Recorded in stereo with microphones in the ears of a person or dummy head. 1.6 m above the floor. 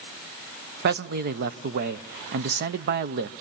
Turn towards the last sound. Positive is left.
turn(degrees=-50)  # may be behind; listen again after turning